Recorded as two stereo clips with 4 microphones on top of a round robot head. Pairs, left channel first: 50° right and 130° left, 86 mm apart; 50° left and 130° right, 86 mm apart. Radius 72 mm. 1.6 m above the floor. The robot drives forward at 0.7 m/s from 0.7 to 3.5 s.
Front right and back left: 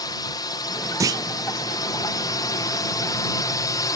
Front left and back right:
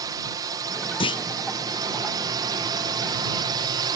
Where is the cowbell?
I don't hear a cowbell.